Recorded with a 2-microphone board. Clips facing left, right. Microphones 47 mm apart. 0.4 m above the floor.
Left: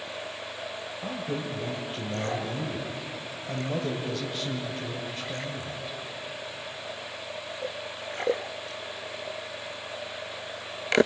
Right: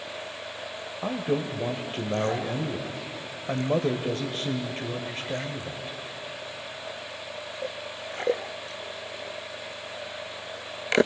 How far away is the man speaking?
About 1.4 m.